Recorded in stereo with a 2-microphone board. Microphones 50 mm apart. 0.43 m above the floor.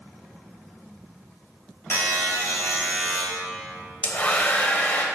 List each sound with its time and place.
1.9 s a buzzer: 60° left (ahead or behind), 1.8 m
4.0 s a hair dryer: 30° left (ahead or behind), 0.7 m